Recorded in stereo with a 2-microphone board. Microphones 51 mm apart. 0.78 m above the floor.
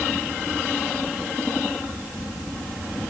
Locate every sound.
Only background noise.